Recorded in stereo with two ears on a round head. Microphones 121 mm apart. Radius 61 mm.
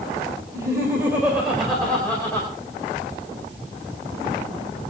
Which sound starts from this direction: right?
Laughter, at 0.5 s.